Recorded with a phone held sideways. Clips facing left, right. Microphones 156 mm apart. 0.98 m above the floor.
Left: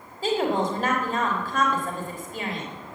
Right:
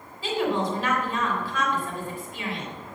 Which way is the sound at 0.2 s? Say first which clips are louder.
Left 2 dB; 45° left (ahead or behind).